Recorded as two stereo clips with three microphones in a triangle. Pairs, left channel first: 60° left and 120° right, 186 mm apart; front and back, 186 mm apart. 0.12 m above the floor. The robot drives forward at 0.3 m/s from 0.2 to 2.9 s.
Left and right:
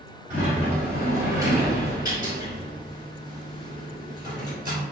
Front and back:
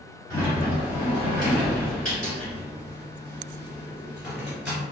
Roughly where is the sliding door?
Ahead right.